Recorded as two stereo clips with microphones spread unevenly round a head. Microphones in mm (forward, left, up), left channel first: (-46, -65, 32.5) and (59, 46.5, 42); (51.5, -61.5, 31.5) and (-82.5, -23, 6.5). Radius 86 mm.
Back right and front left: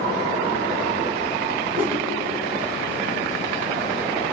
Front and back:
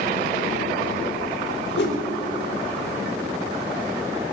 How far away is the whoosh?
About 4 m.